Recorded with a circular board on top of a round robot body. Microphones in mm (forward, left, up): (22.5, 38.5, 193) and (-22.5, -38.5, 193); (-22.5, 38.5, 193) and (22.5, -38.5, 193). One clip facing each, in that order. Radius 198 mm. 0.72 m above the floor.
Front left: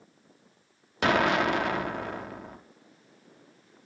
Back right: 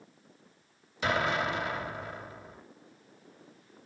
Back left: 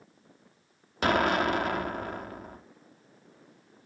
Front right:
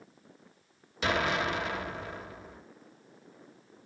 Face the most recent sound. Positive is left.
turn(degrees=85)